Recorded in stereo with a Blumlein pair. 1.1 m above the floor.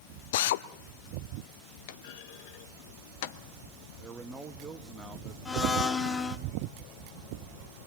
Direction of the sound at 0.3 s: 55° left.